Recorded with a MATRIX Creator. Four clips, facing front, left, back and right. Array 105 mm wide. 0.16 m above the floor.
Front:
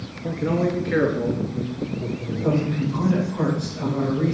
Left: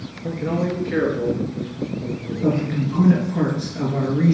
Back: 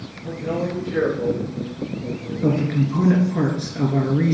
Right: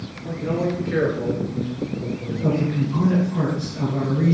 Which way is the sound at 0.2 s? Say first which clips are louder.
Left 1 dB, front 3 dB; 25° left.